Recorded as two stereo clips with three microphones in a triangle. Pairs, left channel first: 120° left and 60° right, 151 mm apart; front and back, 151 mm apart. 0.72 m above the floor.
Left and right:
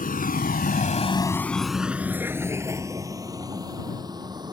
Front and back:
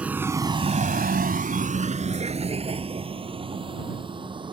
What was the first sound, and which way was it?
A vehicle, 100° left.